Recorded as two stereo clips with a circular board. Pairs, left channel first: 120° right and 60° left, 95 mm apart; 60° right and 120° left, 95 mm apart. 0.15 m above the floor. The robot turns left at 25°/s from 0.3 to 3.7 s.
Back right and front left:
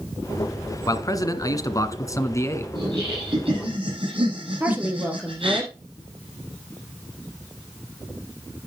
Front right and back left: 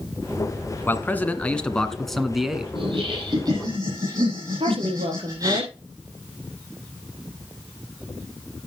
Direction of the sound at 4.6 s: 130° left.